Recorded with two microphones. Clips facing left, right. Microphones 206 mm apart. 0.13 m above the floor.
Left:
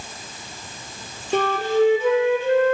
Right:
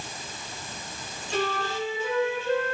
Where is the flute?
65° left (ahead or behind), 0.9 m.